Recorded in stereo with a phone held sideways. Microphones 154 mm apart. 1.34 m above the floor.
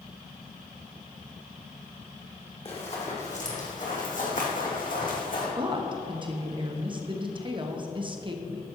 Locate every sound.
2.6 s running footsteps: 40° left (ahead or behind), 2 m; by 5.5 s 65° left (ahead or behind), 3 m
5.6 s a woman speaking: 30° right (ahead or behind), 1.0 m